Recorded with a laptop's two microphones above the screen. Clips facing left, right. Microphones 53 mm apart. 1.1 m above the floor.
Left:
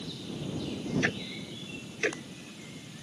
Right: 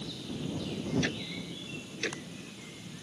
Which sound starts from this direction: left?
Ticking, at 1.0 s.